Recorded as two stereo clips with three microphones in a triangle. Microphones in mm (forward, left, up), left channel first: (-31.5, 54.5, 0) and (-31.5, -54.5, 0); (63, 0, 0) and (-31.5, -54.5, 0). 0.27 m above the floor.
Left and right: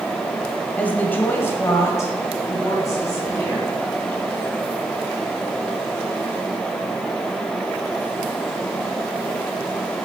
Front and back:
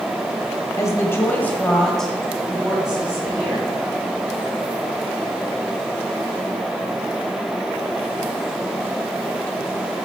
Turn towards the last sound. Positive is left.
turn(degrees=140)